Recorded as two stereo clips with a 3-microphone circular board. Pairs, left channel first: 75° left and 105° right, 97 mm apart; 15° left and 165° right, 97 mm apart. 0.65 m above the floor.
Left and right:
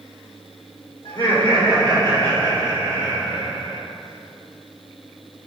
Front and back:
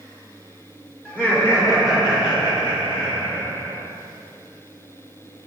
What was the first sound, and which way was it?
Laughter, 90° left.